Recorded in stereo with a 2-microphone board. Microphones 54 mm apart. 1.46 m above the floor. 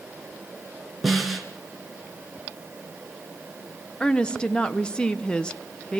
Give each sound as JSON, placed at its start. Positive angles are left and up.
{"t": 1.0, "sound": "a snare drum", "side_deg": 0, "distance_m": 3.0}
{"t": 4.0, "sound": "a woman speaking", "side_deg": 15, "distance_m": 1.1}